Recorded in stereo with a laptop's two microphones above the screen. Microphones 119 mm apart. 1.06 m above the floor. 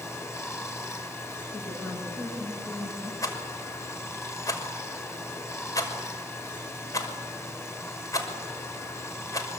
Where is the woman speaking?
20° left (ahead or behind), 9.5 m.